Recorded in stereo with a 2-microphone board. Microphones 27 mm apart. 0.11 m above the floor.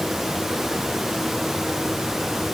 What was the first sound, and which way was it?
Only background noise.